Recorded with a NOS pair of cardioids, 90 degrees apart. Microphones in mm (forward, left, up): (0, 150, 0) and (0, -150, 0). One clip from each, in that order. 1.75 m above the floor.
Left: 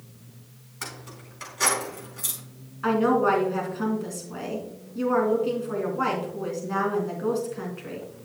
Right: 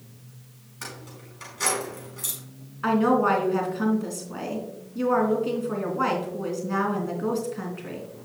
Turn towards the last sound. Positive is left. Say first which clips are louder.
# even
turn(degrees=-10)